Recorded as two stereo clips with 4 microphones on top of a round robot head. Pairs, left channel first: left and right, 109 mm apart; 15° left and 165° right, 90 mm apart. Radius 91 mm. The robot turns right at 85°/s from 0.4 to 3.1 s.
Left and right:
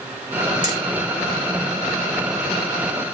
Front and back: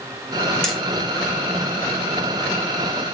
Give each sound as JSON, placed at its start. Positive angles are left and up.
{"t": 0.6, "sound": "hammering", "azimuth_deg": 100, "distance_m": 4.0}